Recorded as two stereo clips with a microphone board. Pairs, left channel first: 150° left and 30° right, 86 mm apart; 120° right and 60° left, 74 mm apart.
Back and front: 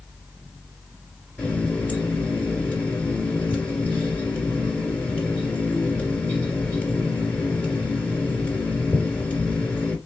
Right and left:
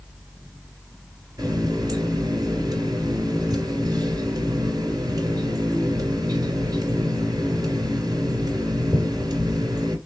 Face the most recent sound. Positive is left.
turn(degrees=80)